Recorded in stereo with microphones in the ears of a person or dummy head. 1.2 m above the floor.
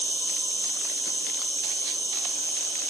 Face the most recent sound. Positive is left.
turn(degrees=15)  # may be behind; listen again after turning